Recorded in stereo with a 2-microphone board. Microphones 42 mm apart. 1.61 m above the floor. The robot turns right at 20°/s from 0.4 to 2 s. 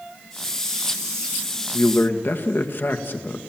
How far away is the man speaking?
About 2.0 m.